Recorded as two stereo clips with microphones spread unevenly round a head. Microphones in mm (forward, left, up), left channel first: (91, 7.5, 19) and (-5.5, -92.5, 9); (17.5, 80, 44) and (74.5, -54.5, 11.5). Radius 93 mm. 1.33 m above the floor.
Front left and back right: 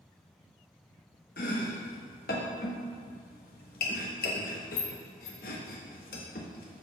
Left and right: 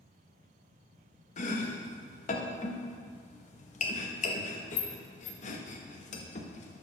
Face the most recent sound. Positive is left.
turn(degrees=85)